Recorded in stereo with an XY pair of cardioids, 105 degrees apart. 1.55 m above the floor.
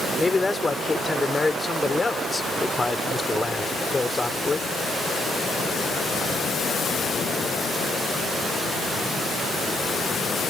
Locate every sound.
0.2 s a man speaking: 20° left